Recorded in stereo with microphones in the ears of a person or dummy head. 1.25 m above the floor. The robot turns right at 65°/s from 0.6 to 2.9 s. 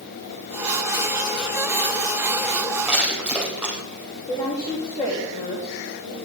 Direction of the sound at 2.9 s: 5° left (ahead or behind).